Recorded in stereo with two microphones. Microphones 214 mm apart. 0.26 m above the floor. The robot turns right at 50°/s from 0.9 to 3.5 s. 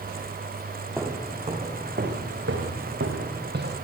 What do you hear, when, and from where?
1.0 s footsteps: 10° right (ahead or behind), 7 m; by 3.7 s 55° right (ahead or behind), 7.5 m